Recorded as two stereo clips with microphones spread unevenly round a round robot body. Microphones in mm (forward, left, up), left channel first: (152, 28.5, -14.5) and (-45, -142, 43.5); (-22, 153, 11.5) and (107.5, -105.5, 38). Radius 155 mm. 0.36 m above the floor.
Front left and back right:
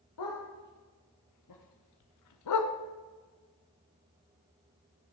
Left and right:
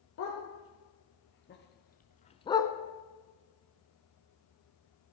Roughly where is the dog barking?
Left.